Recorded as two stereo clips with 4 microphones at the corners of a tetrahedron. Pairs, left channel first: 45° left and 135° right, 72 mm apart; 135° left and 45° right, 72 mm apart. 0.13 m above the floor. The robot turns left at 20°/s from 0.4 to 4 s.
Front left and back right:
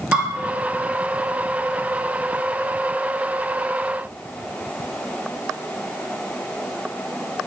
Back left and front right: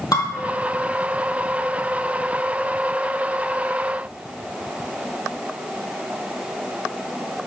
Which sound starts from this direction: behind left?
Dishes clattering, at 0.1 s.